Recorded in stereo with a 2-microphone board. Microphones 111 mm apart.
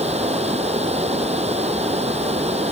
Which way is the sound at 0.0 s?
75° right (ahead or behind).